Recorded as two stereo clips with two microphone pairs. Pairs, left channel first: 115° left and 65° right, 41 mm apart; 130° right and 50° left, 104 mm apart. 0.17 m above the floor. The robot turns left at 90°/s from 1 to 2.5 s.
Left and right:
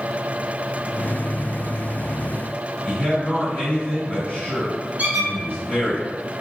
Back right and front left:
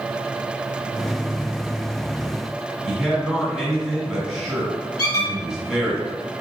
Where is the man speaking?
130° left, 2.0 m.